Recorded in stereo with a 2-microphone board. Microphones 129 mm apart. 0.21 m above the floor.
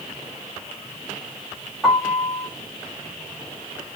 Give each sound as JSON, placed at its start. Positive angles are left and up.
{"t": 1.8, "sound": "a piano", "side_deg": -5, "distance_m": 3.5}